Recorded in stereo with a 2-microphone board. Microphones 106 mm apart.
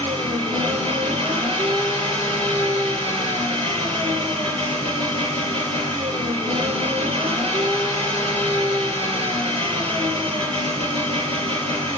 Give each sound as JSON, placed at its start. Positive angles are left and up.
{"t": 0.0, "sound": "an engine running", "side_deg": -65, "distance_m": 5.5}